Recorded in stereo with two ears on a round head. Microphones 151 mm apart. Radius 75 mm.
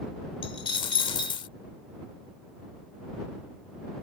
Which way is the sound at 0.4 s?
30° left (ahead or behind).